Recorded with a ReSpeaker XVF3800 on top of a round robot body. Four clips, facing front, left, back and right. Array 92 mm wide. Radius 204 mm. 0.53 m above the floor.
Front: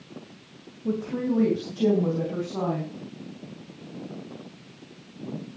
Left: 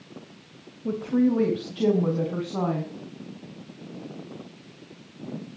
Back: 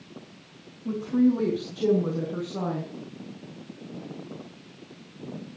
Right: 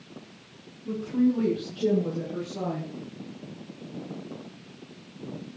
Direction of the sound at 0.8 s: 65° left.